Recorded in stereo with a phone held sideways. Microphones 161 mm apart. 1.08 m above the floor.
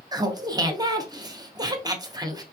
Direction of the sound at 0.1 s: 25° right (ahead or behind).